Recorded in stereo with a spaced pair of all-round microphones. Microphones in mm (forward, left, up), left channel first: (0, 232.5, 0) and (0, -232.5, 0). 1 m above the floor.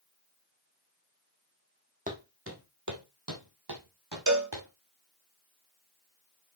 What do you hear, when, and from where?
2.1 s footsteps: 15° right (ahead or behind), 1.9 m; by 4.7 s 65° right (ahead or behind), 3 m
4.3 s a cowbell: 40° right (ahead or behind), 1.0 m